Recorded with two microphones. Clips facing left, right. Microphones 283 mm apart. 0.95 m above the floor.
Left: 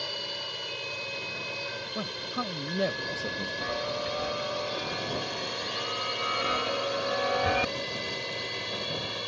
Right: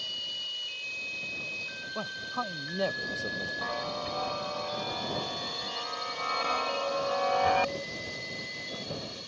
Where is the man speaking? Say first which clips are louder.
Left 3 dB; 15° left (ahead or behind).